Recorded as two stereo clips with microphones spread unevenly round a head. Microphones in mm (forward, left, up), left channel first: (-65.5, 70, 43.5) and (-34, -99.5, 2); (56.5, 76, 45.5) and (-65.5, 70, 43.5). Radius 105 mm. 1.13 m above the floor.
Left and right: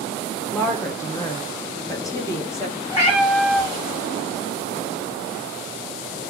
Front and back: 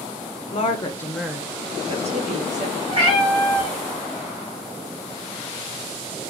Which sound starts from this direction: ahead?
A woman speaking, at 0.5 s.